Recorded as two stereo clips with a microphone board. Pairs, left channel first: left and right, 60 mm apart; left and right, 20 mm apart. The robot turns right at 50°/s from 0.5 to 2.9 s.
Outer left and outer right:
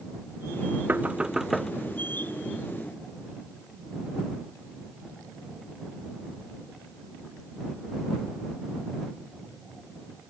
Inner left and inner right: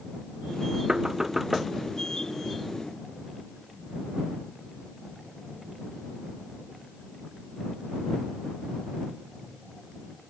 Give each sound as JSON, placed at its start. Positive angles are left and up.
{"t": 0.9, "sound": "knocking", "azimuth_deg": -30}